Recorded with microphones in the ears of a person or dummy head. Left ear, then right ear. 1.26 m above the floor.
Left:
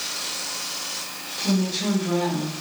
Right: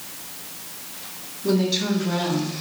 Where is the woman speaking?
30° right (ahead or behind), 2.5 m; by 2.5 s 15° right (ahead or behind), 2.5 m.